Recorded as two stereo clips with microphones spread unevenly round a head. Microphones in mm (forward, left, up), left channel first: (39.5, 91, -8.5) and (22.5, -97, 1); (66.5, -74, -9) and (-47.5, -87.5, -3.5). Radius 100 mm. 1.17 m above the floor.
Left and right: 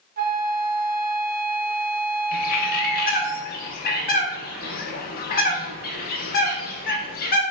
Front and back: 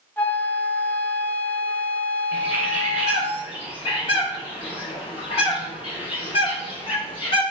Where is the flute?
65° right, 0.6 m.